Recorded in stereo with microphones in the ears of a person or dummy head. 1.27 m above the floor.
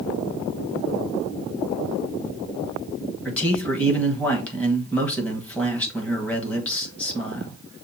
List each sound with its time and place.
3.2 s a man speaking: 10° left (ahead or behind), 1.3 m